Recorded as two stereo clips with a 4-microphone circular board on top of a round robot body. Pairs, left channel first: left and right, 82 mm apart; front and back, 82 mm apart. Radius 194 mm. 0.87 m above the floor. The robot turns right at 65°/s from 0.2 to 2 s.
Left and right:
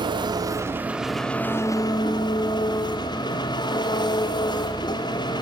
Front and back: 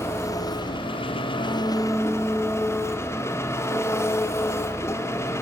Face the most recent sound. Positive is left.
turn(degrees=60)